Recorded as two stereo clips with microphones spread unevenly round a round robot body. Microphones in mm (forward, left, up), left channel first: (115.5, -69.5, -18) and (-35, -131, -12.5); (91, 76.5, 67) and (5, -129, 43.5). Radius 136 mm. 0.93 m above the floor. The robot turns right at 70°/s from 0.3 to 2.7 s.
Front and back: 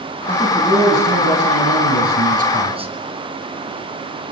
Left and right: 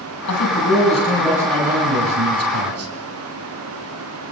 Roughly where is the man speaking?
Left.